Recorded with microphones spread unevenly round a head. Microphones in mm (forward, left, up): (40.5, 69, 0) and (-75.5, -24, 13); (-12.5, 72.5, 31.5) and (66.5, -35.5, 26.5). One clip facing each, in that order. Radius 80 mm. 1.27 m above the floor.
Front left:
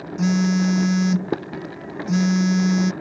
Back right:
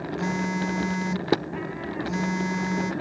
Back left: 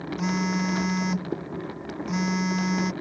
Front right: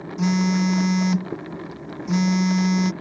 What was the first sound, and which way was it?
A phone buzzing, straight ahead.